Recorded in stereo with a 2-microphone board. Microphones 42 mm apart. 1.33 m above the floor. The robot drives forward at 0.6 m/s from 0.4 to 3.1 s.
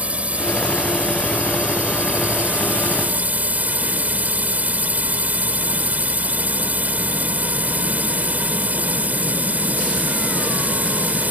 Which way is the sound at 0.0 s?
35° right (ahead or behind).